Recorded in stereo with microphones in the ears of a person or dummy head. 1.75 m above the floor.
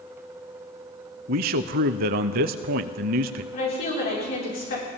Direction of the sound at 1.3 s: 50° right (ahead or behind).